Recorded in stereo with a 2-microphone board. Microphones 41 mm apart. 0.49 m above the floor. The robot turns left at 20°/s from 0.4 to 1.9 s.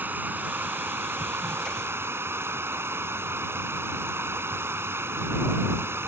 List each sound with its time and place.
0.0 s running water: 50° right; by 6.1 s 80° right